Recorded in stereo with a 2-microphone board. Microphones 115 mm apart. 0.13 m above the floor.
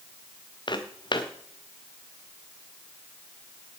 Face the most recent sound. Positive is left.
turn(degrees=40)  # may be behind; listen again after turning